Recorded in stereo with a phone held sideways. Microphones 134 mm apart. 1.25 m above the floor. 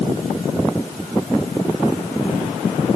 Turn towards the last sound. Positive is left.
No sound to turn to.